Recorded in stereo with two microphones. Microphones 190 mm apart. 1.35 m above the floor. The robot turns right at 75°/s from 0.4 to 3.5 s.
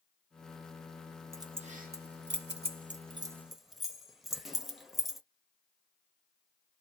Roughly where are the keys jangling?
Centre.